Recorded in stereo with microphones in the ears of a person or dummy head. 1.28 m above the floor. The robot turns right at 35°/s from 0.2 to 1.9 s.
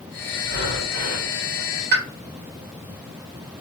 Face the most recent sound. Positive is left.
turn(degrees=-50)  # may be behind; listen again after turning